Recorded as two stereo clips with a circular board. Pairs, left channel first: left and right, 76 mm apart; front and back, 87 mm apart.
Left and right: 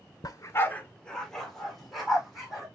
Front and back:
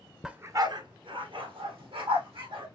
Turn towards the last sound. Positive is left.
turn(degrees=-175)